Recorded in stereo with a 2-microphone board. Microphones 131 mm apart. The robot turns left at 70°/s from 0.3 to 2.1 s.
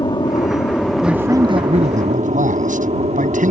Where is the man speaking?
5° right; by 3.5 s 80° right.